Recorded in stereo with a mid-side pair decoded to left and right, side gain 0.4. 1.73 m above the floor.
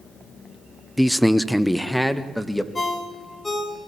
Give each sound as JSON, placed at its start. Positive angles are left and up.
{"t": 1.0, "sound": "a man speaking", "azimuth_deg": 0, "distance_m": 0.8}
{"t": 2.8, "sound": "a ringtone", "azimuth_deg": 25, "distance_m": 5.0}